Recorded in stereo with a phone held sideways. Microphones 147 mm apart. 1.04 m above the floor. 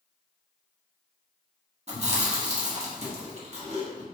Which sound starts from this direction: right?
Chewing, at 1.9 s.